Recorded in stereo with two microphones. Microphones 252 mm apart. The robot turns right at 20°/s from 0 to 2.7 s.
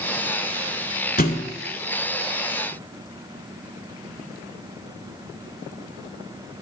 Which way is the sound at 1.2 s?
35° left (ahead or behind).